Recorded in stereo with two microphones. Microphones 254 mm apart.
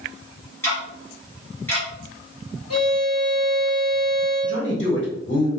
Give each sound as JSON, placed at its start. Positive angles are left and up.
{"t": 0.6, "sound": "ticking", "side_deg": 10, "distance_m": 1.1}
{"t": 2.7, "sound": "a violin", "side_deg": -70, "distance_m": 1.3}
{"t": 4.4, "sound": "a man speaking", "side_deg": 45, "distance_m": 1.0}